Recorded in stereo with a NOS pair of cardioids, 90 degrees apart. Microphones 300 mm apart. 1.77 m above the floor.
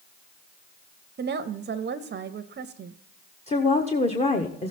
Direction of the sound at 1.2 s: 35° right.